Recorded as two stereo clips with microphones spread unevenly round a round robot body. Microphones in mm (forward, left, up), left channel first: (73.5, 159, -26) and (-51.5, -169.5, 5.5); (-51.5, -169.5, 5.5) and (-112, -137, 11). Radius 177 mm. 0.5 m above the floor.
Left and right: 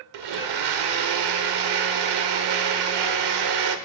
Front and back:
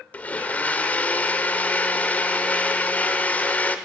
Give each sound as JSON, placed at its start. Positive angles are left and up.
{"t": 0.1, "sound": "a blender", "azimuth_deg": -95, "distance_m": 1.2}